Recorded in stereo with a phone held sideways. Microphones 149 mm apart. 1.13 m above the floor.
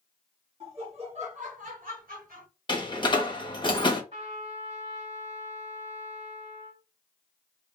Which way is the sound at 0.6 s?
40° right (ahead or behind).